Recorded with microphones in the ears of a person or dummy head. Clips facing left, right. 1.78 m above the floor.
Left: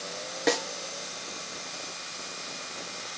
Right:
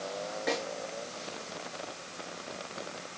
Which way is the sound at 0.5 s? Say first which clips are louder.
Left 6 dB; 70° left (ahead or behind).